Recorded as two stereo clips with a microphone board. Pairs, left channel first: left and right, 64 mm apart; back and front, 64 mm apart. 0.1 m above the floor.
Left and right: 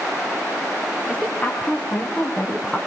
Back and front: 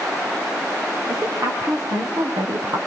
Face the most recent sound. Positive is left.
turn(degrees=5)